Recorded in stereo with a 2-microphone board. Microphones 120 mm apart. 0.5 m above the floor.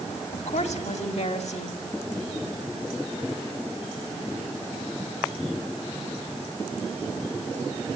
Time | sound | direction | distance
0.3 | a woman speaking | 70° left (ahead or behind) | 3.5 m